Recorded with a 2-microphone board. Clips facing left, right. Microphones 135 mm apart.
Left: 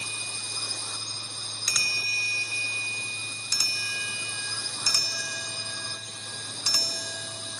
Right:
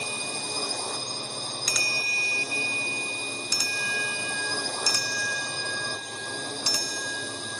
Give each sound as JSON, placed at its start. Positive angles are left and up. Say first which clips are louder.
{"t": 0.0, "sound": "a drone", "louder": "right 8 dB", "side_deg": -55}